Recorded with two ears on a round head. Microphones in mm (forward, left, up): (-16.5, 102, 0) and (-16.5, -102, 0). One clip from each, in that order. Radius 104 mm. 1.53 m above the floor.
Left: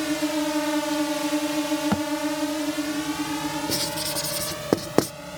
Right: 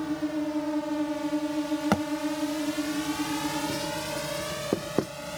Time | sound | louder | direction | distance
0.0 | a drone | left 5 dB | 80° left | ?
1.9 | a thud | even | 25° right (ahead or behind) | ?
3.7 | writing | left 4 dB | 70° left (ahead or behind) | ?